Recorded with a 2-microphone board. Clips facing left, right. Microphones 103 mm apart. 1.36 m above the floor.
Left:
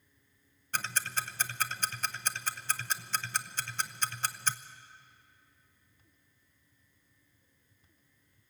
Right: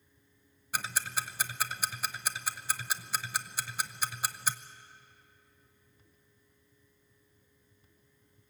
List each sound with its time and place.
0.7 s ticking: 10° right (ahead or behind), 0.7 m